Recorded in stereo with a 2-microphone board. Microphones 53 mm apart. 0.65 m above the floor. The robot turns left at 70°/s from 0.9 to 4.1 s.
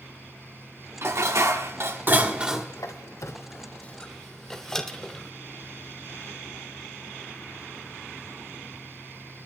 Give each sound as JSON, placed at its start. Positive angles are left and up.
{"t": 1.0, "sound": "dishes clattering", "azimuth_deg": -60, "distance_m": 1.0}
{"t": 2.8, "sound": "a squeak", "side_deg": 75, "distance_m": 0.8}